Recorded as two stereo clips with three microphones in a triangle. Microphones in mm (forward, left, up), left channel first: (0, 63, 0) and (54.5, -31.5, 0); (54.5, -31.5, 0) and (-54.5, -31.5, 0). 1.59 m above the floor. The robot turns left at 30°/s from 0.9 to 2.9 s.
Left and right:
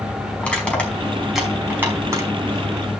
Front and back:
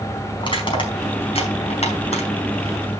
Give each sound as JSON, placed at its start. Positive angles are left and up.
{"t": 0.4, "sound": "crushing", "azimuth_deg": 40, "distance_m": 4.5}